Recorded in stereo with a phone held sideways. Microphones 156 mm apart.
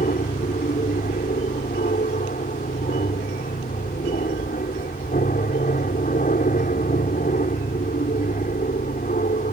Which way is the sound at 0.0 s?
65° left (ahead or behind).